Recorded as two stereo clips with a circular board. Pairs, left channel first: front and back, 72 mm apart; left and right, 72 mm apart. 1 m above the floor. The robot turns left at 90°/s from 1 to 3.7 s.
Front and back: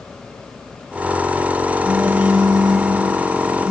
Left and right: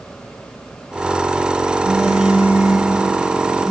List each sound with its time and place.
1.8 s a phone buzzing: 95° right, 6 m; by 3.7 s 95° left, 6 m